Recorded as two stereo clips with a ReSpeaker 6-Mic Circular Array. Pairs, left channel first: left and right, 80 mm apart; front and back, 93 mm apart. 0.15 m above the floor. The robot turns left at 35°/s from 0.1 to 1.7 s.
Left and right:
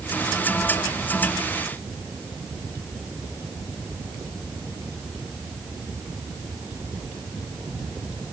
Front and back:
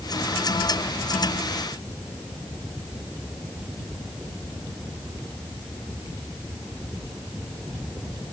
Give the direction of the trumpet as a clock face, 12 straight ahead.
I don't hear a trumpet.